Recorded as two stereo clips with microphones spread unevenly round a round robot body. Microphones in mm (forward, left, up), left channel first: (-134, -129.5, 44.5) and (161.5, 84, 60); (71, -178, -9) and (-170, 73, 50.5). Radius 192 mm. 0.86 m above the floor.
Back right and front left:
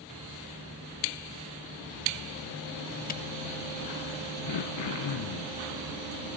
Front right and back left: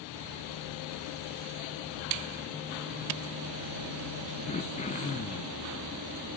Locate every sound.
3.1 s a camera shutter: 155° left, 0.6 m
4.5 s throat clearing: 115° right, 0.6 m